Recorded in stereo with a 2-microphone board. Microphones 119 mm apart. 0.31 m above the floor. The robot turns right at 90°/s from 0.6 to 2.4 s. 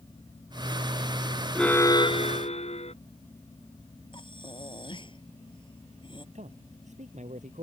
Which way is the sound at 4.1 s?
45° left (ahead or behind).